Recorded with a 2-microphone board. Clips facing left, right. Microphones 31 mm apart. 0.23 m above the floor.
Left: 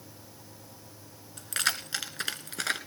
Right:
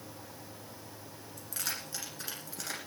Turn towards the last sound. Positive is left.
turn(degrees=65)  # may be behind; listen again after turning